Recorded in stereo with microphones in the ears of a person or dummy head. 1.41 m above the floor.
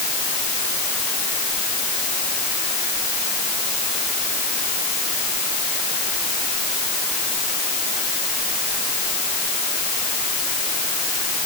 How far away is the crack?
I don't hear a crack.